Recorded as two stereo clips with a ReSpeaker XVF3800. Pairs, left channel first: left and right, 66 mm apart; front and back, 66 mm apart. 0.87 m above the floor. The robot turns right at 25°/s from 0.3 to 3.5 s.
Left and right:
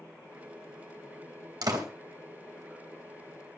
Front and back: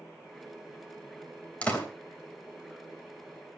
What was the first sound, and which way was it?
A door slam, 70° right.